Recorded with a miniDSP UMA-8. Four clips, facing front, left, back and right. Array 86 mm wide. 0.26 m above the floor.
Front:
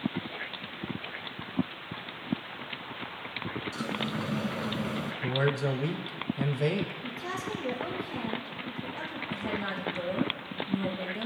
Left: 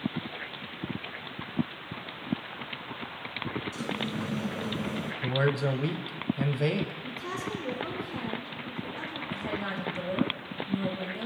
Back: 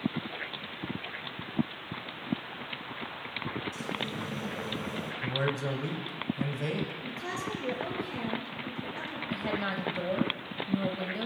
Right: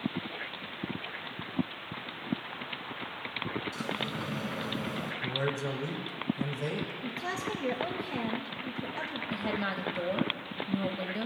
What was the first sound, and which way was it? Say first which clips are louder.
A sliding door: left 2 dB, front 3 dB; 25° right.